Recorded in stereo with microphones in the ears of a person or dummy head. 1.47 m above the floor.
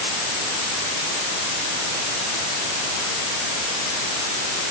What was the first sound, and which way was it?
Only background noise.